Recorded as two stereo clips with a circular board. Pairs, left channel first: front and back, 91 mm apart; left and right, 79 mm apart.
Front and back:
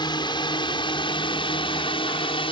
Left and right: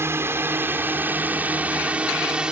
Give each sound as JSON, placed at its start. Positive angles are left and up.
{"t": 0.0, "sound": "a drone", "azimuth_deg": -35}